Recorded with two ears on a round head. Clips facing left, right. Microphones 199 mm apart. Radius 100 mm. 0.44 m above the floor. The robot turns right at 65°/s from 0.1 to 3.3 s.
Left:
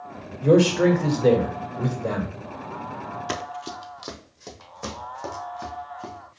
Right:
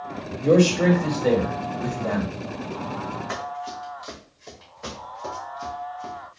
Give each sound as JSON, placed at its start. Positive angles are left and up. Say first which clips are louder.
{"t": 0.4, "sound": "a man speaking", "louder": "left 1 dB", "azimuth_deg": 0, "distance_m": 1.6}
{"t": 3.3, "sound": "running footsteps", "louder": "even", "side_deg": 50, "distance_m": 0.7}